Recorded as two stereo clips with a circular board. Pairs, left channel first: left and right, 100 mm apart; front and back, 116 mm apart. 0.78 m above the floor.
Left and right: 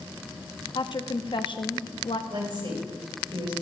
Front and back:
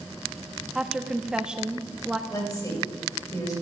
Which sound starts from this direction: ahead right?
A woman speaking, at 2.3 s.